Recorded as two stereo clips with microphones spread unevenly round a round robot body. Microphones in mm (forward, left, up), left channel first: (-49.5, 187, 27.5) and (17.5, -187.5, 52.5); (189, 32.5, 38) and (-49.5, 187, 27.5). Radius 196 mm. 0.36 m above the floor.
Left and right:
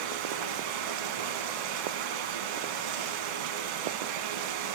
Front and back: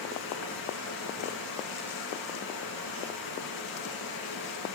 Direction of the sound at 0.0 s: 90° right.